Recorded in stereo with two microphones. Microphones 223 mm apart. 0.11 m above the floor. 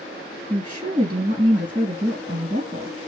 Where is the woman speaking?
25° right (ahead or behind), 2.0 m.